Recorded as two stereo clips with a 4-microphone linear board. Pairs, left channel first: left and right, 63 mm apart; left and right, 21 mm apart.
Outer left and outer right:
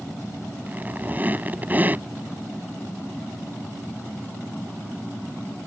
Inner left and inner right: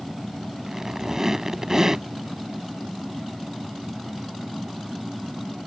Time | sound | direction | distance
0.7 | a squeak | 30° right (ahead or behind) | ?